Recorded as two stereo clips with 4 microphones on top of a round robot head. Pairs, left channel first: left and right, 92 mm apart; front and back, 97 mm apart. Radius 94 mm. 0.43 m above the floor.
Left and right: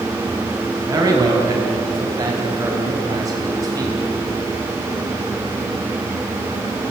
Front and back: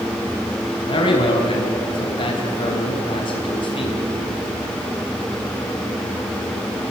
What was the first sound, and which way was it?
A man speaking, 35° right.